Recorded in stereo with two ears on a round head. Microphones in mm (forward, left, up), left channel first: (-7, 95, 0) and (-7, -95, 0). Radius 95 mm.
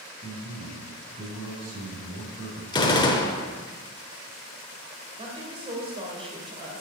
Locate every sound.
0.2 s a man speaking: 55° right (ahead or behind), 3 m
2.7 s a gunshot: 20° left (ahead or behind), 1.0 m
5.2 s a woman speaking: 25° right (ahead or behind), 2.5 m